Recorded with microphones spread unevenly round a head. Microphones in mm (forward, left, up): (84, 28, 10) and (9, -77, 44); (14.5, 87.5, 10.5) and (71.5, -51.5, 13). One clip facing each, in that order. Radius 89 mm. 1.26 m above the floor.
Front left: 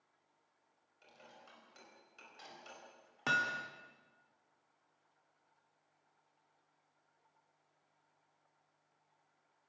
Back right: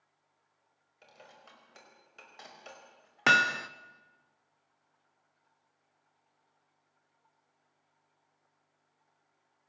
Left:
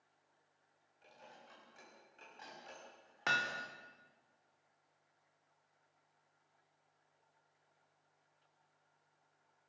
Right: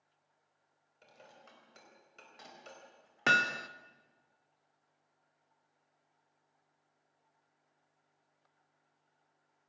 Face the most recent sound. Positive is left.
turn(degrees=-110)